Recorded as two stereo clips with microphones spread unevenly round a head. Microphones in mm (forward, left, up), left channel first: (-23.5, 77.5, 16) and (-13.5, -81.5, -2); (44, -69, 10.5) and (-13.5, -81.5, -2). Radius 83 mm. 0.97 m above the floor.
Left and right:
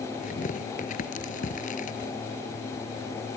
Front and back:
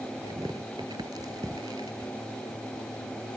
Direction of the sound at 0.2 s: 135° left.